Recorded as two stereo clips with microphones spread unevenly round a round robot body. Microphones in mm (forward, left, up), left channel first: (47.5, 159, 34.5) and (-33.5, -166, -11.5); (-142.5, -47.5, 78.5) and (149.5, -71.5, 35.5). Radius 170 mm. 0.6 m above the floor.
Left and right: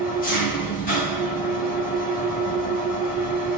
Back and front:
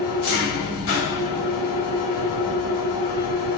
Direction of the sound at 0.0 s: 145° left.